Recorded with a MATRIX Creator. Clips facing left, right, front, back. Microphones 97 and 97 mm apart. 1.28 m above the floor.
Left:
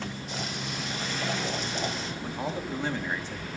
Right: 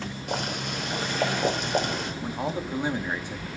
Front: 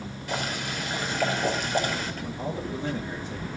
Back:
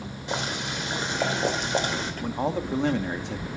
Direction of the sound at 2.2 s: 165° right.